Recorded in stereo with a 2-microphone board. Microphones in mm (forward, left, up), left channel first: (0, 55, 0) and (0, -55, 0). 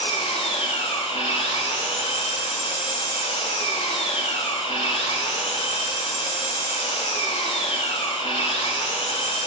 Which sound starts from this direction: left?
An engine running, at 0.0 s.